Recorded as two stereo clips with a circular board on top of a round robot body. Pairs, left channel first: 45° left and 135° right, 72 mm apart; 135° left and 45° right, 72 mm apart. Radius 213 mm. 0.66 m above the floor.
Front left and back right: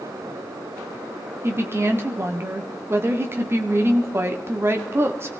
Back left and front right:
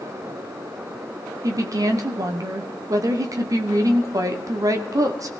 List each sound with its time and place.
1.4 s a woman speaking: 85° right, 1.9 m